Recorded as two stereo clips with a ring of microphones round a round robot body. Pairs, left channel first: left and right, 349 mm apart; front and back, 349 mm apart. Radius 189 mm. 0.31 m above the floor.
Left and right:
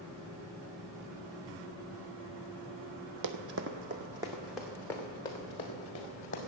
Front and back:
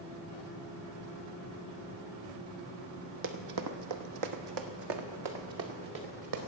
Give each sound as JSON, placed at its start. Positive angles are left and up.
{"t": 3.2, "sound": "running footsteps", "azimuth_deg": -125, "distance_m": 0.6}